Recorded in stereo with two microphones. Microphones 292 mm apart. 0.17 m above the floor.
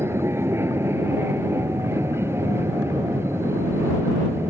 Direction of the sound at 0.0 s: 10° right (ahead or behind).